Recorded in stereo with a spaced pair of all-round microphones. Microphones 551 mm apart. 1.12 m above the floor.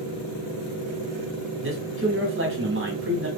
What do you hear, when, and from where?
1.6 s a man speaking: 20° right (ahead or behind), 1.0 m